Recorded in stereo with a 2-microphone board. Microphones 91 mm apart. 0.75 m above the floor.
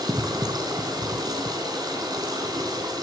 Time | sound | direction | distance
0.0 | running water | 50° right (ahead or behind) | 3 m